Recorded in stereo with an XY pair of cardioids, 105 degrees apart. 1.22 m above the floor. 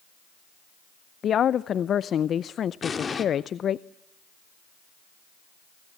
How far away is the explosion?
About 2.5 m.